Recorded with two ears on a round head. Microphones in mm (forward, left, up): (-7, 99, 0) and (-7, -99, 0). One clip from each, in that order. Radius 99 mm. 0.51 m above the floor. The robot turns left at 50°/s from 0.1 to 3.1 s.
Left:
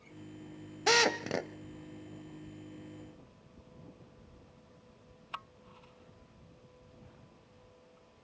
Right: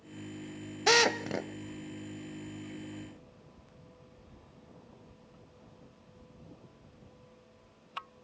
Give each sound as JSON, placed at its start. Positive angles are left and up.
{"t": 0.9, "sound": "a drill", "side_deg": -10, "distance_m": 0.9}